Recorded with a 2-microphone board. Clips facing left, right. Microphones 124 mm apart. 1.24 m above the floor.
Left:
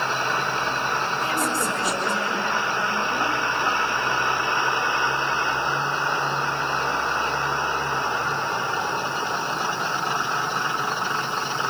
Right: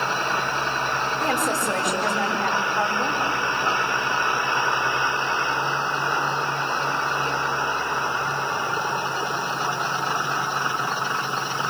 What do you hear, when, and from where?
1.2 s a woman speaking: 60° right (ahead or behind), 7 m